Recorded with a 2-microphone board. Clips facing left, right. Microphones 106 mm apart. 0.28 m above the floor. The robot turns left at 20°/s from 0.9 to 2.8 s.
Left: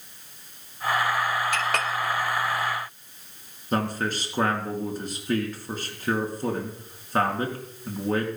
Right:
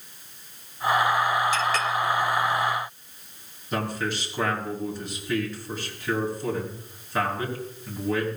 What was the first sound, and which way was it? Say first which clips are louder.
A clink: right 2 dB; 60° left (ahead or behind).